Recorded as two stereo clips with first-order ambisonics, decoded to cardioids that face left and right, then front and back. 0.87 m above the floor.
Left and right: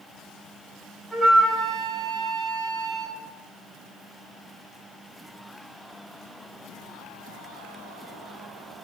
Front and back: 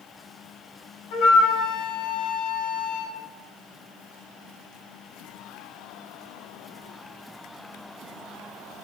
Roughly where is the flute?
Ahead.